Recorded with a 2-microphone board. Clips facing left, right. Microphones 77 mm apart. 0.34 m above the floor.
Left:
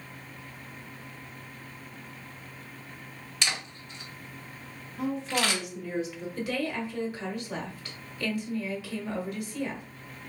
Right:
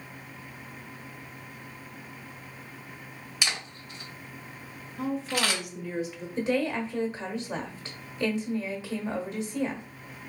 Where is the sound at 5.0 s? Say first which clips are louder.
Even; centre (ahead or behind), 0.9 m.